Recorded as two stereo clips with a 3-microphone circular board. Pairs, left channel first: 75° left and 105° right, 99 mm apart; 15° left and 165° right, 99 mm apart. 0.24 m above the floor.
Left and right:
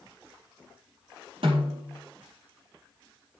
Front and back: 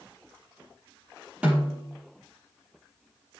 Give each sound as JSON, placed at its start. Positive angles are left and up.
{"t": 1.4, "sound": "a snare drum", "azimuth_deg": -90, "distance_m": 6.5}